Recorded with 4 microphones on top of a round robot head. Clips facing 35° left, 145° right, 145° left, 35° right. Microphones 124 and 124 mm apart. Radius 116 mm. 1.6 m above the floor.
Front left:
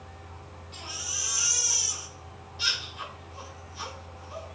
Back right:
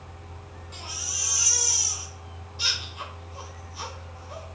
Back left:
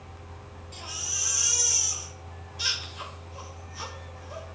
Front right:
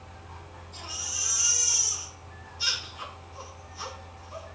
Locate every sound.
0.7 s a baby crying: 165° left, 2.5 m